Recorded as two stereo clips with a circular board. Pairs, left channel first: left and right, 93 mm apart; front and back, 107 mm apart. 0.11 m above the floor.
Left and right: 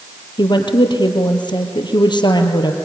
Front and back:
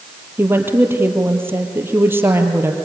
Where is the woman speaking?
115° left, 2.5 m.